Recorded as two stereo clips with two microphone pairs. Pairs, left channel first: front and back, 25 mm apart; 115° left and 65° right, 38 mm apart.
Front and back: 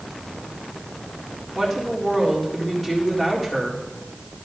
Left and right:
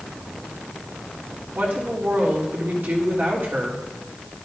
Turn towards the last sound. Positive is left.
turn(degrees=-80)